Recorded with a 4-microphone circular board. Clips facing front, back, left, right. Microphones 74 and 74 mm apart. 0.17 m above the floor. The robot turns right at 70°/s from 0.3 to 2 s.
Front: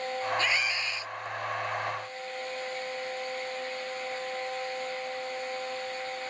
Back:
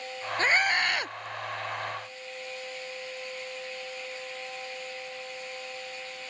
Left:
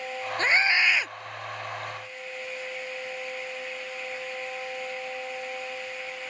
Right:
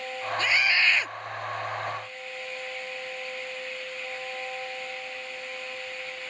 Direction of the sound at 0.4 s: 135° left.